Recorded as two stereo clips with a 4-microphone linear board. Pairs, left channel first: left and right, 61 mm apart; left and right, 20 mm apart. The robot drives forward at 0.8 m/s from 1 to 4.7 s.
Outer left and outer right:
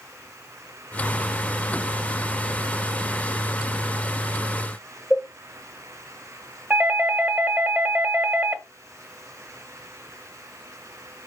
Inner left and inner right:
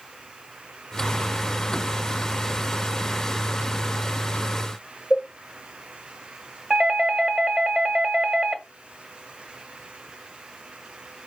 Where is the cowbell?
20° right (ahead or behind), 5.5 m.